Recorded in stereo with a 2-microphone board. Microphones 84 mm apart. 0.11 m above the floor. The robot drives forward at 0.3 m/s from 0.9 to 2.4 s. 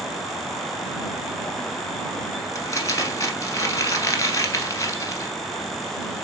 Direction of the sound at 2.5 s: 35° left (ahead or behind).